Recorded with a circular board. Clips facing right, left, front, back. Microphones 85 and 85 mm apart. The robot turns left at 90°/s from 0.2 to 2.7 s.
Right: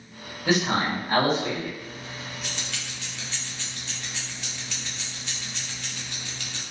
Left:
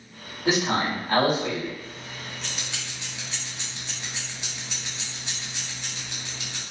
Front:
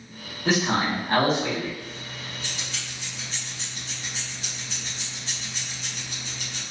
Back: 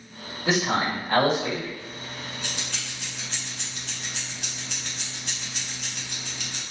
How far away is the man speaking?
About 1.7 m.